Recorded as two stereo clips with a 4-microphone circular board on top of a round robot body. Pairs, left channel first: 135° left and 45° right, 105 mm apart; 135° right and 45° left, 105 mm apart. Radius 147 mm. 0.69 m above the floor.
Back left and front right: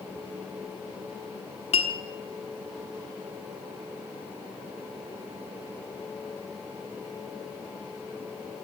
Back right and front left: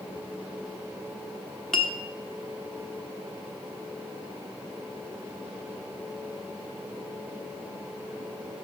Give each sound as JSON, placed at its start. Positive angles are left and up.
{"t": 1.7, "sound": "a clink", "azimuth_deg": 140, "distance_m": 1.3}